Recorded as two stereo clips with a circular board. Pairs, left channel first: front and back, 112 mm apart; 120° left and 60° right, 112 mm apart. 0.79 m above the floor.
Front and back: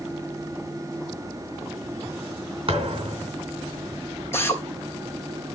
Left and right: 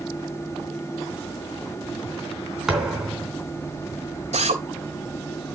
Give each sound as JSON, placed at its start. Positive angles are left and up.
{"t": 2.7, "sound": "a thud", "azimuth_deg": -145, "distance_m": 3.5}
{"t": 4.3, "sound": "a drill", "azimuth_deg": -70, "distance_m": 3.0}